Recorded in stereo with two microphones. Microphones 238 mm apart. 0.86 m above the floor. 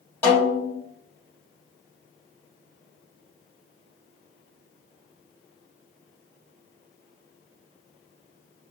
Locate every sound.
0.2 s a snare drum: 10° left (ahead or behind), 1.6 m